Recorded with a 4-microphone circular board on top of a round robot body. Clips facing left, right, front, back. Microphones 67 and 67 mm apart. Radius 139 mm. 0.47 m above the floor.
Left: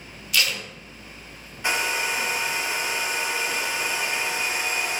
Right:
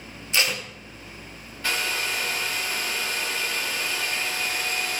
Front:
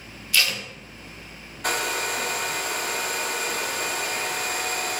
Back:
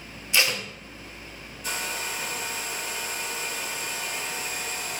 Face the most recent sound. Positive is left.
turn(degrees=20)